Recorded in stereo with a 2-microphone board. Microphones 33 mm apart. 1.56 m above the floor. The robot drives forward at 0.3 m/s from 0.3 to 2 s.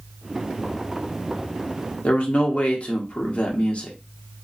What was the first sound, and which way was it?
A man speaking, 40° left (ahead or behind).